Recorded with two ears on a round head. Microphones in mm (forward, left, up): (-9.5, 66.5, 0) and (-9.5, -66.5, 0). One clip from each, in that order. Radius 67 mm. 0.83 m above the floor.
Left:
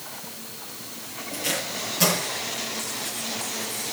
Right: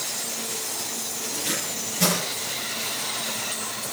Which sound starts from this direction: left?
Tape being pulled, at 1.3 s.